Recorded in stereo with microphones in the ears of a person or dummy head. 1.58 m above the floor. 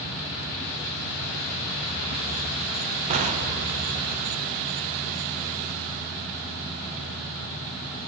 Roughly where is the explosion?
Right.